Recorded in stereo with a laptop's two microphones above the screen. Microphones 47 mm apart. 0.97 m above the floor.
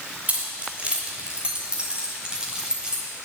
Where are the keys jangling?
35° right (ahead or behind), 2.5 m; by 3.0 s 15° right (ahead or behind), 4 m.